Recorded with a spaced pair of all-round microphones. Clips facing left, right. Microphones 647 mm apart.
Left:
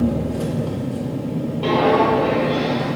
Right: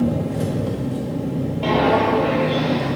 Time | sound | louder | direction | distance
0.0 | an engine running | even | 45° right (ahead or behind) | 1.8 m
1.6 | footsteps | left 2 dB | 15° right (ahead or behind) | 1.8 m